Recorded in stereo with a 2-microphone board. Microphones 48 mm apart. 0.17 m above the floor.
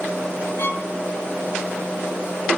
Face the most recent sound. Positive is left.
turn(degrees=50)  # may be behind; listen again after turning